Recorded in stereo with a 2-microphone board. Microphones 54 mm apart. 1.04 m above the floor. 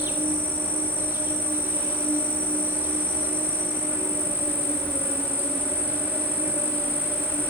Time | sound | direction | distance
0.0 | an insect | 40° right (ahead or behind) | 1.9 m